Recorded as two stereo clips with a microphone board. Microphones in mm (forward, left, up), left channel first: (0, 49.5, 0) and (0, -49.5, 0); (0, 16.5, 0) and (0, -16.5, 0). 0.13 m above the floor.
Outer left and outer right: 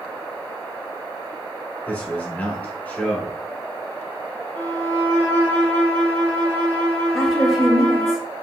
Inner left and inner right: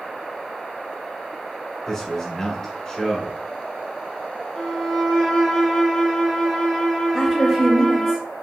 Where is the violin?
20° left (ahead or behind), 0.7 m.